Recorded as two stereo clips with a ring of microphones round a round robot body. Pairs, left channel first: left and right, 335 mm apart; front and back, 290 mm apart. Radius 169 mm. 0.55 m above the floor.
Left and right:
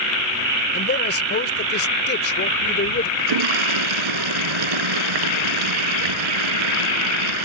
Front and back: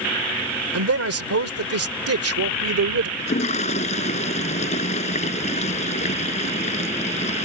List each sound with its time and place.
0.7 s a man speaking: 150° left
3.2 s a toilet flushing: 70° right